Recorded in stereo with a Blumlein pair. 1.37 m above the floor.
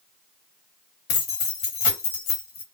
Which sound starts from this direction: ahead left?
Keys jangling, at 1.1 s.